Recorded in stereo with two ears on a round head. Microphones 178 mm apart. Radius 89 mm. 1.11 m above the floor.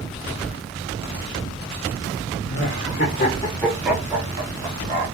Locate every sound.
2.4 s laughter: 50° left (ahead or behind), 0.9 m; by 5.0 s 40° right (ahead or behind), 1.0 m